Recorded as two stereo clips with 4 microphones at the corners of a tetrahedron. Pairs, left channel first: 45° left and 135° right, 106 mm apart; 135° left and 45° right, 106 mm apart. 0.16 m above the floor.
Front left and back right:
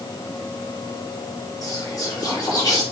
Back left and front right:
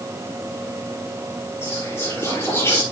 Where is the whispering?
80° left, 2 m.